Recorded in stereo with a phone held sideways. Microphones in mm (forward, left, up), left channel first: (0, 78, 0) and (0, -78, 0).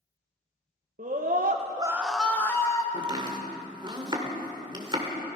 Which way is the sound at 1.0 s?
60° right (ahead or behind).